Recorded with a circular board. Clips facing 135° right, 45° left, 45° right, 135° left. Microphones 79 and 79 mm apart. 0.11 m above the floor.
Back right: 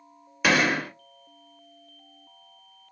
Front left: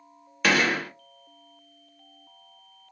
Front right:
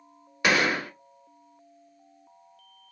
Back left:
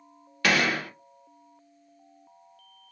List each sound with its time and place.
0.4 s a gunshot: 65° right, 1.1 m